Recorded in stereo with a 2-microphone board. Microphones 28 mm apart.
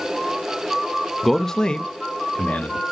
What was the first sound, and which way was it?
A man speaking, centre (ahead or behind).